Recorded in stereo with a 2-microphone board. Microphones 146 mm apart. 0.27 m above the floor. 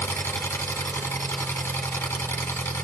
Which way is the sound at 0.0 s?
15° left (ahead or behind).